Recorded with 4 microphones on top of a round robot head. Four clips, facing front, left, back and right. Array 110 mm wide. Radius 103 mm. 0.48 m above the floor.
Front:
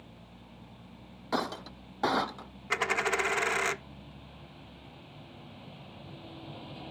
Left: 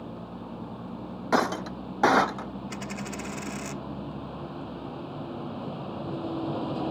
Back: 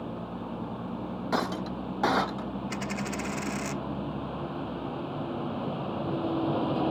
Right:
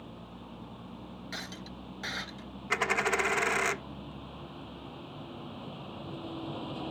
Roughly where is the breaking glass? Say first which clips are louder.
Left 21 dB, back 3 dB; left.